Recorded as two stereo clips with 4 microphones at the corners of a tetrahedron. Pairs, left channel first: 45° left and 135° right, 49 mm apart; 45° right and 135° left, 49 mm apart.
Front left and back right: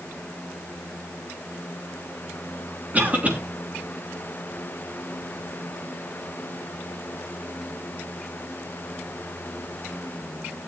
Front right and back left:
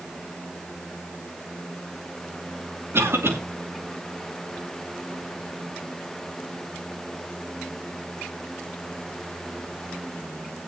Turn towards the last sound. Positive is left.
turn(degrees=170)